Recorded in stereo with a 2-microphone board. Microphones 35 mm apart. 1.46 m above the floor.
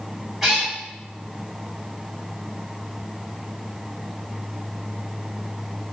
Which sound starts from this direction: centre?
A cat meowing, at 0.4 s.